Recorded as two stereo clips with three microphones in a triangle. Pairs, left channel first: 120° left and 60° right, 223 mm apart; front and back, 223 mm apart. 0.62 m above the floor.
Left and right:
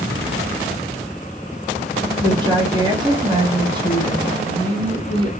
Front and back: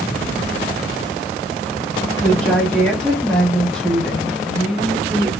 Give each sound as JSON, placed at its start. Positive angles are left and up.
{"t": 2.2, "sound": "a woman speaking", "azimuth_deg": -80, "distance_m": 0.9}